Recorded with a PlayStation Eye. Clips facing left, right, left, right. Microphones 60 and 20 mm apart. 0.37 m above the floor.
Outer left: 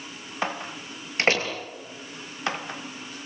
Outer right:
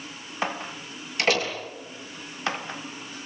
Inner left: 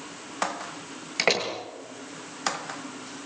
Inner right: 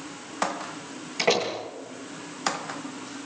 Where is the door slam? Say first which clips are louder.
Outer left 1 dB, inner right 1 dB; 35° left (ahead or behind), 6.5 m.